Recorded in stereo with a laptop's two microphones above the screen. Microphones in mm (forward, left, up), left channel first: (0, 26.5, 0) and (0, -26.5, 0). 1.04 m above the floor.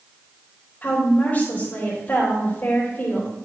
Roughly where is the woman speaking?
Left.